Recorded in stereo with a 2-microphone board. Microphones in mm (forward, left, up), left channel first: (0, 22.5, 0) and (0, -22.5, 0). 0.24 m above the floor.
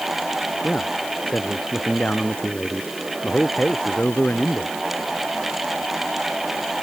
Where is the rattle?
No rattle in this recording.